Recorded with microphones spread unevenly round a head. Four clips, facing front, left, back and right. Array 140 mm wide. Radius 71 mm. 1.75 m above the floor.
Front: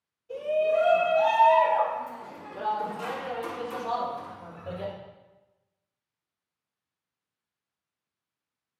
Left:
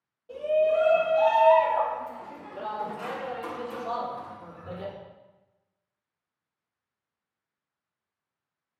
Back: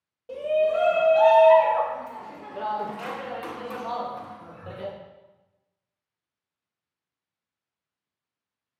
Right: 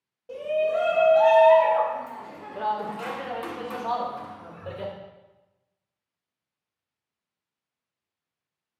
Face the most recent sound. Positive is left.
turn(degrees=-100)